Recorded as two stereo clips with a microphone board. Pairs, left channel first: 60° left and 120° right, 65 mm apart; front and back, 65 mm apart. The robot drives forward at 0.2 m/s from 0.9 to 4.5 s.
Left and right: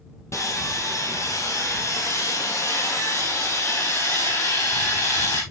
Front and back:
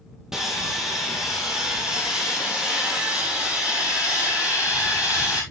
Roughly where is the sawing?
Left.